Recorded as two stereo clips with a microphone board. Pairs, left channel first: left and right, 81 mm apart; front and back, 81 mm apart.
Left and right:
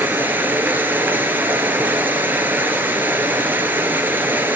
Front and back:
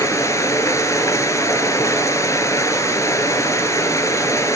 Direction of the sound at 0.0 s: 30° right.